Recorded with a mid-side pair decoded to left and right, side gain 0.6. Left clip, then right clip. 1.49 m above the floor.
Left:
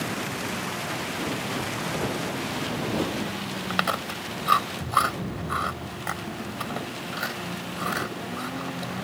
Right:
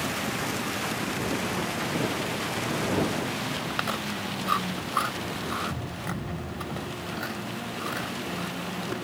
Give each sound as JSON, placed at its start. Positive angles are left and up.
{"t": 3.7, "sound": "chewing", "azimuth_deg": 30}